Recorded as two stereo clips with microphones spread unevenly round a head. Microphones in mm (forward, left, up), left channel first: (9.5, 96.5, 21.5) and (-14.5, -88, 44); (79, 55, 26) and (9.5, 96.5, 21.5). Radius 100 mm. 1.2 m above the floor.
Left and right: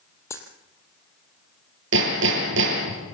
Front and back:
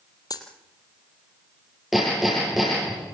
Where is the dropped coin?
5° left, 3 m.